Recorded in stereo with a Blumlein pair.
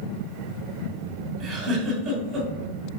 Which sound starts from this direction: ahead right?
A giggle, at 1.4 s.